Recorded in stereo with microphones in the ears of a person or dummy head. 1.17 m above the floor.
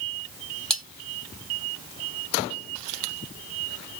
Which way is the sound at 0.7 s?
Centre (ahead or behind).